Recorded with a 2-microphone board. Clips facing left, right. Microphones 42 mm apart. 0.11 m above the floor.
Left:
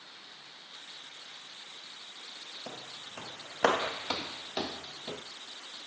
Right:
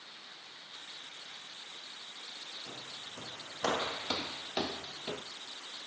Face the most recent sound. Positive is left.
turn(degrees=-35)  # may be behind; listen again after turning